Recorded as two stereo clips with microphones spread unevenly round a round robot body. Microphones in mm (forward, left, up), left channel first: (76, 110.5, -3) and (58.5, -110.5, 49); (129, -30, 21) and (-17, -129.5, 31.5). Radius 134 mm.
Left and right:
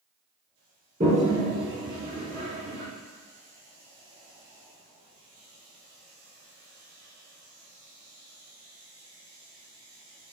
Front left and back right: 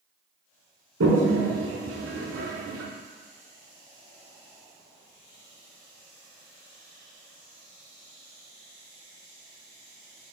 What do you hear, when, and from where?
1.0 s a toilet flushing: 155° right, 0.7 m